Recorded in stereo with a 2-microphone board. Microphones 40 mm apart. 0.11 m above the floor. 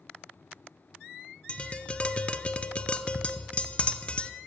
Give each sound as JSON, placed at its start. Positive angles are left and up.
{"t": 1.5, "sound": "tapping", "side_deg": 30, "distance_m": 0.5}